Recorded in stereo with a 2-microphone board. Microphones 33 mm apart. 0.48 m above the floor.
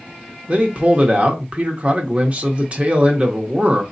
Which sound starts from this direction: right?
A man speaking, at 0.5 s.